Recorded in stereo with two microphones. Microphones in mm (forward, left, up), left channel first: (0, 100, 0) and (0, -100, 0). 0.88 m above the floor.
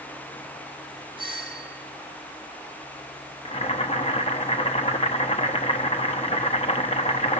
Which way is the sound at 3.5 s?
30° left (ahead or behind).